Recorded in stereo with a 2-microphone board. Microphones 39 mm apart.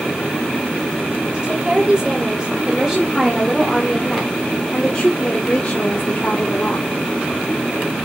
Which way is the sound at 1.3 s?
30° right (ahead or behind).